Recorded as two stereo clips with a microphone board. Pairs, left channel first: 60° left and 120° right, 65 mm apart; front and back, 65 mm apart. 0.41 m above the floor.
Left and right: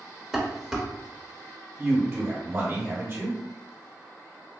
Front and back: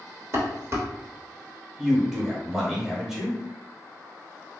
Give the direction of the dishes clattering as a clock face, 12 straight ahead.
7 o'clock.